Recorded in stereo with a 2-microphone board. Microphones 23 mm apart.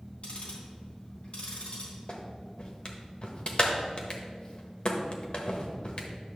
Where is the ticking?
60° left (ahead or behind), 3 m.